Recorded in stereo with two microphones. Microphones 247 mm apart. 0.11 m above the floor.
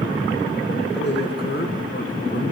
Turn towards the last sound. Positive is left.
turn(degrees=30)  # may be behind; listen again after turning